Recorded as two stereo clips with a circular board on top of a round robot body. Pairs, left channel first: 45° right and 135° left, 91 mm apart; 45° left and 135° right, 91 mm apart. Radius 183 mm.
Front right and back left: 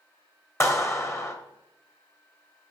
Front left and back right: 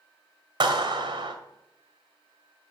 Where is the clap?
100° right, 2.5 m.